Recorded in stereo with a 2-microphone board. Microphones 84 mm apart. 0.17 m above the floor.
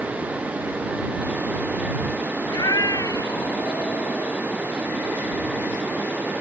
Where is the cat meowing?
50° left (ahead or behind); by 4.4 s 45° left (ahead or behind).